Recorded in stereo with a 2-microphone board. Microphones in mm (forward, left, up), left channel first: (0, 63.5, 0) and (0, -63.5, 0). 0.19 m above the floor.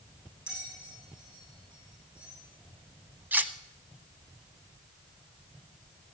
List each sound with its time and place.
0.5 s a bell: 10° right (ahead or behind), 4.5 m
3.3 s cutlery clinking: 15° right (ahead or behind), 0.6 m